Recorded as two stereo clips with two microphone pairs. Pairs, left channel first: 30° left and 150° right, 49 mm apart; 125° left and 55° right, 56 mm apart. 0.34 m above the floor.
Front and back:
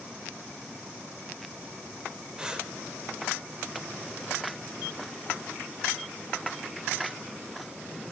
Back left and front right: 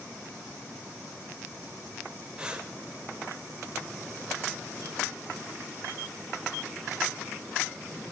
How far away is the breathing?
About 0.9 m.